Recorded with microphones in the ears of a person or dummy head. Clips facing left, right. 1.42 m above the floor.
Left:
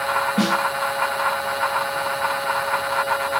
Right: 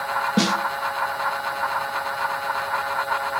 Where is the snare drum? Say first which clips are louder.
Even; 55° right (ahead or behind), 0.6 m.